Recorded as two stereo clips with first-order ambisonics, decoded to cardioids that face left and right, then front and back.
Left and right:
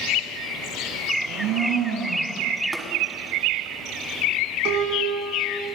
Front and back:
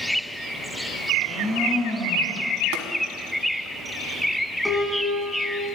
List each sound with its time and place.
1.1 s a blender: 70° right, 4 m
2.7 s tapping: 175° right, 2 m
4.7 s a piano: 90° right, 1.6 m